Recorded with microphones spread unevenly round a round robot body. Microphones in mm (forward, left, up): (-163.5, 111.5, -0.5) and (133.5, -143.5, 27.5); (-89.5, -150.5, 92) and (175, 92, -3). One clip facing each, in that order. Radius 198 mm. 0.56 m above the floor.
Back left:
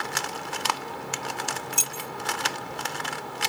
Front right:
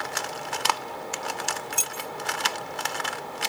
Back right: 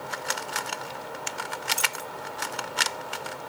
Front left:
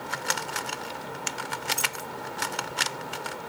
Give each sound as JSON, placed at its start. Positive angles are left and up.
{"t": 1.7, "sound": "keys jangling", "azimuth_deg": 145}